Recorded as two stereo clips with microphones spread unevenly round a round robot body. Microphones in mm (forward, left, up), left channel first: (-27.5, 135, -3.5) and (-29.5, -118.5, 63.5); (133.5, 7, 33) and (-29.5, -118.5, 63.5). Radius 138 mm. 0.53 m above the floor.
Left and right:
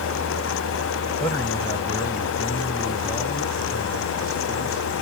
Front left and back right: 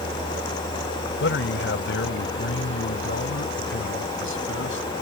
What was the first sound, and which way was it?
A man speaking, 10° left.